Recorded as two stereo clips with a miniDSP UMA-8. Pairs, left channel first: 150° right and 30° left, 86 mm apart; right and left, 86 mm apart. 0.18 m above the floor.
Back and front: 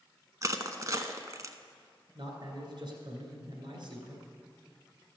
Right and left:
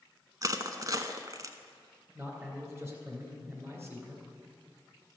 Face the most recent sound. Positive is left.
turn(degrees=30)